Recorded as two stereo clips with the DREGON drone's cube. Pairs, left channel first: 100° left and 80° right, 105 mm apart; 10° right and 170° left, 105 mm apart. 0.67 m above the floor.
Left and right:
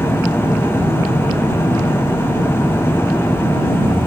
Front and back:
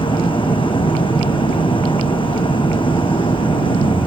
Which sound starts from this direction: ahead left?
An engine running, at 0.0 s.